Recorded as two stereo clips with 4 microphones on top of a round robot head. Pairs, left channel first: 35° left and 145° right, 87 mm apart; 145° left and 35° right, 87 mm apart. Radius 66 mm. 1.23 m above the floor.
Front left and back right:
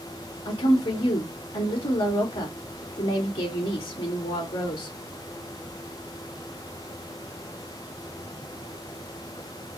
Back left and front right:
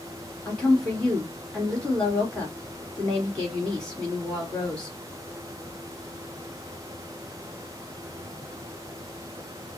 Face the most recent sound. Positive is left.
turn(degrees=65)